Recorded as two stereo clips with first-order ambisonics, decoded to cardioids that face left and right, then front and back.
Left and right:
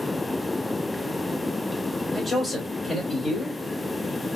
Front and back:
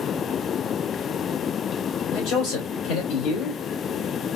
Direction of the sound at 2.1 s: 10° left.